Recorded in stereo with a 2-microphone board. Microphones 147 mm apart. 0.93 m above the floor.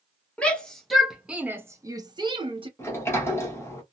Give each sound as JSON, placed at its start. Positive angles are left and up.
{"t": 0.4, "sound": "a shout", "side_deg": 10, "distance_m": 1.0}
{"t": 2.8, "sound": "a sliding door", "side_deg": 15, "distance_m": 1.0}